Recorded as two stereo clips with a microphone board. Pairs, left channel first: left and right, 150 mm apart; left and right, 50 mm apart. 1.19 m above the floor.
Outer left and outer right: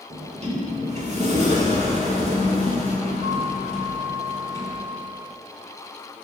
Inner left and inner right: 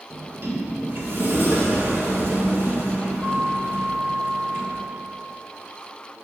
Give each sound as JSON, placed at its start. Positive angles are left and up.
{"t": 0.1, "sound": "a sliding door", "side_deg": -45, "distance_m": 1.6}